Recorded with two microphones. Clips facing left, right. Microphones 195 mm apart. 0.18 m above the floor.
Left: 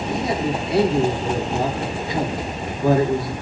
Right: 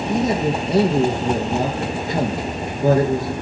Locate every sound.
0.1 s a man speaking: 45° right (ahead or behind), 2.5 m